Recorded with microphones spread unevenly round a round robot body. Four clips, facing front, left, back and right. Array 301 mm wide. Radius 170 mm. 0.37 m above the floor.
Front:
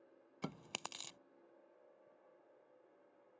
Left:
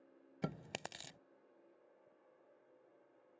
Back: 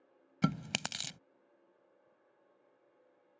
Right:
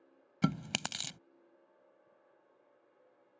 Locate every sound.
0.4 s chewing: 140° right